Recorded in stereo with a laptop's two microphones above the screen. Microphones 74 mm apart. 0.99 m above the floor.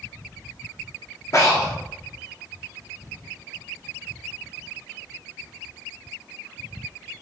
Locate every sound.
1.3 s breathing: 40° left (ahead or behind), 0.8 m